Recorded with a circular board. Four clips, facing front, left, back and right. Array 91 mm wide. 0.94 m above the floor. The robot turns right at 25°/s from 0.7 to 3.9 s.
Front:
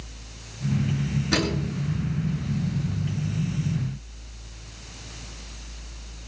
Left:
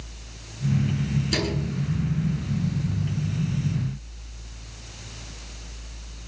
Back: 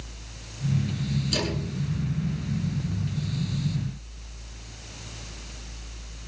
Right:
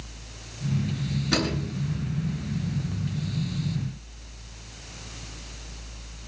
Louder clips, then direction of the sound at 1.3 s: Even, front 4 dB; 45° right.